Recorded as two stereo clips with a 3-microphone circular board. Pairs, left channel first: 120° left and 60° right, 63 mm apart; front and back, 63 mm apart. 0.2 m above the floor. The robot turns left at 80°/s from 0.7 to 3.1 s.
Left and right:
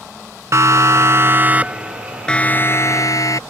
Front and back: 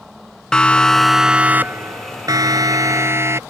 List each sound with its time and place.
0.5 s a siren: 75° right; by 3.4 s 140° left